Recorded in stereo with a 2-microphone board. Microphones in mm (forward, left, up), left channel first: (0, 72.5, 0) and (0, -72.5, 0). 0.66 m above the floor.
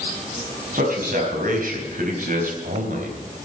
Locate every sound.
0.7 s a man speaking: 80° right, 4.5 m; by 3.5 s 70° right (ahead or behind), 2.5 m